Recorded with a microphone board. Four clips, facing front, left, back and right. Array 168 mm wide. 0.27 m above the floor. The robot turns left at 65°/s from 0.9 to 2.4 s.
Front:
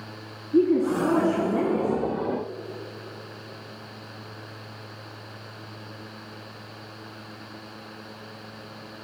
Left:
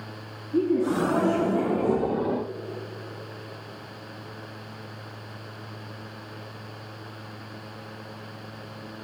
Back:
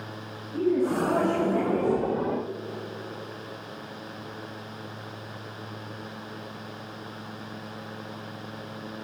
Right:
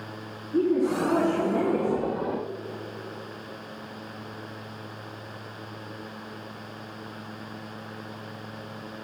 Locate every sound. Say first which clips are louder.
0.5 s a woman speaking: even, front 4 dB; 15° left, 3.5 m; by 2.1 s 65° right, 3.5 m